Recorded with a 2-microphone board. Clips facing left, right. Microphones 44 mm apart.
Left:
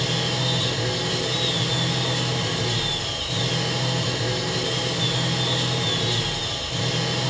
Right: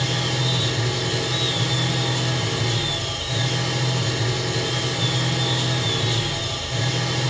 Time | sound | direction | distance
0.0 | an engine running | 40° right (ahead or behind) | 9.5 m